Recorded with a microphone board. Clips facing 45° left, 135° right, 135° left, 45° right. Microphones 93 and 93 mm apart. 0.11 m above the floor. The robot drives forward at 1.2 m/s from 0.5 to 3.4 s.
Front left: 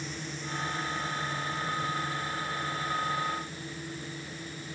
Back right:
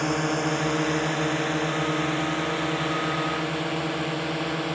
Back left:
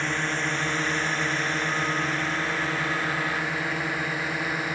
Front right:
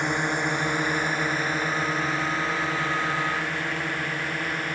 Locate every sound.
0.0 s a drone: 120° right; by 4.8 s 140° right